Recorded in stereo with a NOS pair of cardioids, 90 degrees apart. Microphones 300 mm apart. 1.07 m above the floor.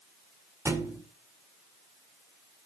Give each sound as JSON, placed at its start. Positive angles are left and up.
{"t": 0.7, "sound": "a thud", "azimuth_deg": -10, "distance_m": 1.9}